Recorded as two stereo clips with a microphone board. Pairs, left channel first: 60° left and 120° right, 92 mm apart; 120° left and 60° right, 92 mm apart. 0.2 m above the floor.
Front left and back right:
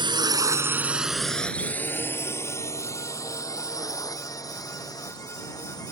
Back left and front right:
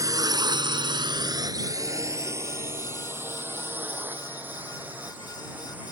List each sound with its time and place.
0.0 s a drone: 105° right; by 5.9 s 15° left